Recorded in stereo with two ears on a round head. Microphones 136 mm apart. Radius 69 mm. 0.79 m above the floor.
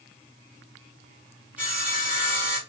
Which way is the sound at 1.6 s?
10° right (ahead or behind).